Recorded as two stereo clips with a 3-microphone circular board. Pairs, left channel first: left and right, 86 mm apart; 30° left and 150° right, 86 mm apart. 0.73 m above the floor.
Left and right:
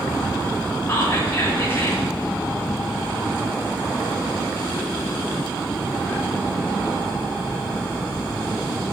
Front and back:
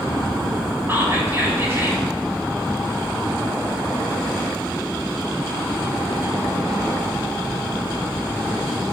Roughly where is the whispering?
Behind left.